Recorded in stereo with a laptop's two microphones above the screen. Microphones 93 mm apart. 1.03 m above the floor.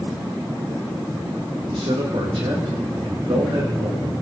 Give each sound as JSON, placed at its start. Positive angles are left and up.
{"t": 1.7, "sound": "a man speaking", "side_deg": -65, "distance_m": 1.8}